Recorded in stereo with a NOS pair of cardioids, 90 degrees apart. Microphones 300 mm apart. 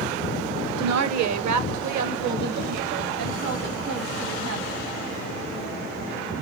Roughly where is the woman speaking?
Ahead right.